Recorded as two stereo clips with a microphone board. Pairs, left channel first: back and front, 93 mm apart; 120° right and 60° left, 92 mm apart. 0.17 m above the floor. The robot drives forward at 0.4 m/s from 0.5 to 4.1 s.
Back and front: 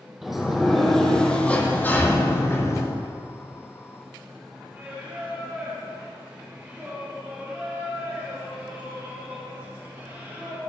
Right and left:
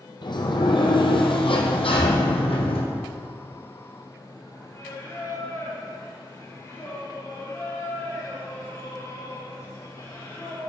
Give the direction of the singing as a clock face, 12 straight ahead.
2 o'clock.